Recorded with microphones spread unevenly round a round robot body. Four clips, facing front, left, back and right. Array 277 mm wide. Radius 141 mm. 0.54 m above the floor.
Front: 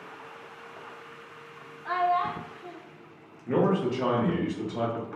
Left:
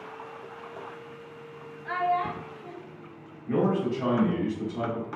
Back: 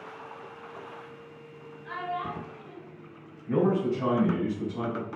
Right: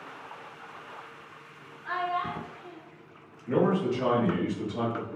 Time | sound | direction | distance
1.9 | a child speaking | 15° left | 0.7 m
3.5 | a man speaking | 5° right | 1.6 m